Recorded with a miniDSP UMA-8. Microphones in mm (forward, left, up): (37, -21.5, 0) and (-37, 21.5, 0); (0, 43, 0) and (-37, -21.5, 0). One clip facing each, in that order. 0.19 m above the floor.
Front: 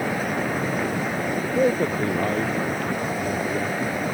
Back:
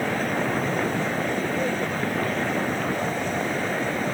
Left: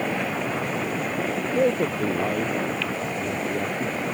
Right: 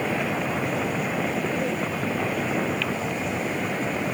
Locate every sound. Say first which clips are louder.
1.6 s a man speaking: front 5 dB, left 5 dB; 25° left